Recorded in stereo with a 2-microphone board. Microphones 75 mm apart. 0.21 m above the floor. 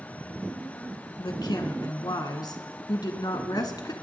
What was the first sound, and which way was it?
A woman speaking, 60° left (ahead or behind).